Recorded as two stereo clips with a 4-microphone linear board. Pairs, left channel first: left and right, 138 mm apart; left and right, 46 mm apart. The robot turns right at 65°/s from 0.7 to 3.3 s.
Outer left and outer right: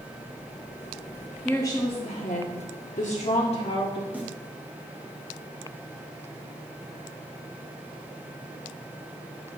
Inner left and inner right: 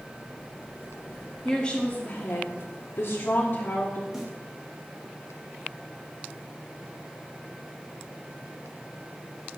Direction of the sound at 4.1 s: 10° right (ahead or behind).